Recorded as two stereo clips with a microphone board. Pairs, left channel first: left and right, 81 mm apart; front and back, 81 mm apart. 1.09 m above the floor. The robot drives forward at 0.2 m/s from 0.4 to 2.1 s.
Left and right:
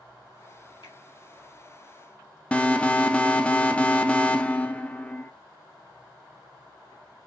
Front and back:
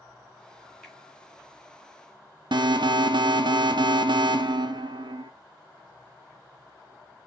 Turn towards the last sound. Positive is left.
turn(degrees=165)